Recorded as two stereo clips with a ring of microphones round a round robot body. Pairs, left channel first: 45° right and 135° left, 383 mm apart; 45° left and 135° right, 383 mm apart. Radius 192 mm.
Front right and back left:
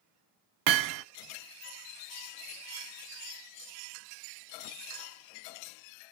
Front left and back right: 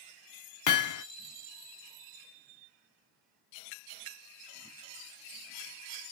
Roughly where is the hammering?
Left.